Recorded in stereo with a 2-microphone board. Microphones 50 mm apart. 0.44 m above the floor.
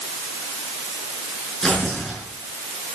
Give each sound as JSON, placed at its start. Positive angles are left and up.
{"t": 1.6, "sound": "tearing paper", "side_deg": 5, "distance_m": 6.0}